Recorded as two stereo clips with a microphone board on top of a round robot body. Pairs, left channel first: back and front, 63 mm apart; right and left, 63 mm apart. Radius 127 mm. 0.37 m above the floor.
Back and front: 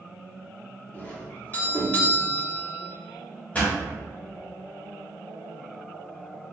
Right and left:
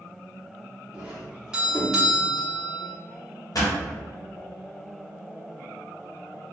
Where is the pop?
115° right, 1.3 m.